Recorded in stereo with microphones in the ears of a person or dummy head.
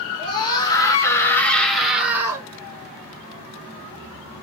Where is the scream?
25° left (ahead or behind), 1.7 m; by 2.5 s 20° right (ahead or behind), 1.0 m.